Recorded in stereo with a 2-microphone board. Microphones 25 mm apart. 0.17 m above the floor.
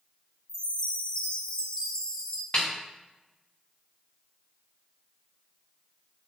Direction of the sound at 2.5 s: 55° left (ahead or behind).